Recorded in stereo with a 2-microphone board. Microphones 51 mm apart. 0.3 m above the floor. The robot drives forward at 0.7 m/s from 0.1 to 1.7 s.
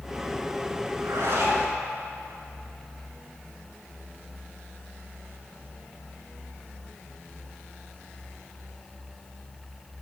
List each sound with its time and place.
0.9 s a zipper: 65° right (ahead or behind), 2.0 m; by 1.7 s 55° right (ahead or behind), 2 m